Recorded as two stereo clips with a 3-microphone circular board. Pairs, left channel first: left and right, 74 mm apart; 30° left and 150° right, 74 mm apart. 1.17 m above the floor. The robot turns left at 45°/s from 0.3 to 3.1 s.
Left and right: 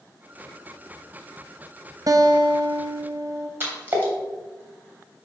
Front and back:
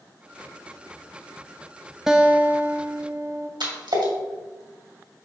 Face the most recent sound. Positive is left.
turn(degrees=-150)